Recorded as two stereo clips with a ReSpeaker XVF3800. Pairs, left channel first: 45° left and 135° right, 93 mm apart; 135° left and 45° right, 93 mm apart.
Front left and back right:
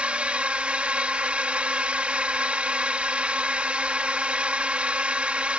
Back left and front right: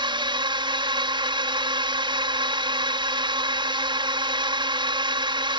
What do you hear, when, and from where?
0.0 s a drone: 60° right